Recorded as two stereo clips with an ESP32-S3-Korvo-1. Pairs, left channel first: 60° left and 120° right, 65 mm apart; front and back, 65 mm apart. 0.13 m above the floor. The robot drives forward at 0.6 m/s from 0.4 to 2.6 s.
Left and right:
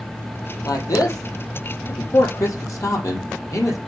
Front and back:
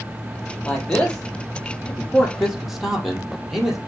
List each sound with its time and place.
0.7 s a man speaking: 70° left, 3.5 m; by 3.8 s 90° left, 3 m